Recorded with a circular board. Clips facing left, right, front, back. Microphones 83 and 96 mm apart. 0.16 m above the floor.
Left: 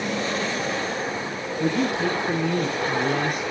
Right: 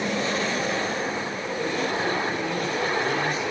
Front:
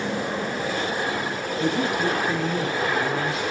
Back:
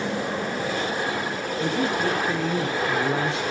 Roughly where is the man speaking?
Left.